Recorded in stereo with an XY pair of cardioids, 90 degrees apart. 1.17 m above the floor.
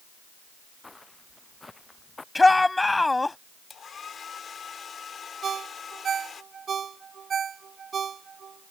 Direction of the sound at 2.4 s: 20° left.